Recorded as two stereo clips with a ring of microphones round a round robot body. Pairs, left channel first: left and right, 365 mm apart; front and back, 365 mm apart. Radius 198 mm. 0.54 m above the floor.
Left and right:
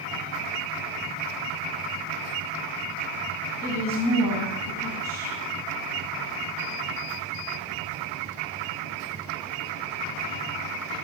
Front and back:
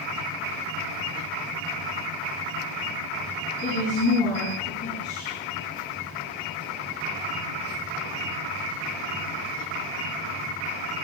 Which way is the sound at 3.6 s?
70° left.